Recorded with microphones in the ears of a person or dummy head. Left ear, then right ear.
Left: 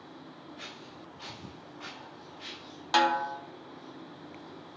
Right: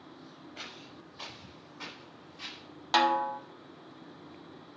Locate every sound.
0.6 s footsteps: 65° right (ahead or behind), 5.5 m
2.9 s a snare drum: 5° right (ahead or behind), 0.7 m